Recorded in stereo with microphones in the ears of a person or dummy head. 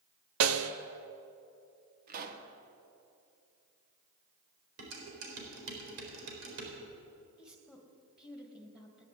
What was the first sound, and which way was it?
A snare drum, 80° right.